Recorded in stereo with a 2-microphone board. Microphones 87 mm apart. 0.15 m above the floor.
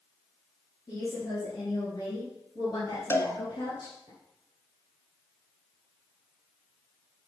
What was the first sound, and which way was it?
A woman speaking, 30° left (ahead or behind).